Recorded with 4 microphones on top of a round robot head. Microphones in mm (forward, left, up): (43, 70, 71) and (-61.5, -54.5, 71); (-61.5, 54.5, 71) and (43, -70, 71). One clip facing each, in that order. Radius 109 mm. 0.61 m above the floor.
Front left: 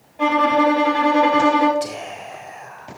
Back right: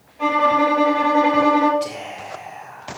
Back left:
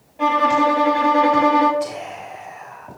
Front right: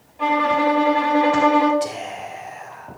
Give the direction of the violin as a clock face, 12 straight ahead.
9 o'clock.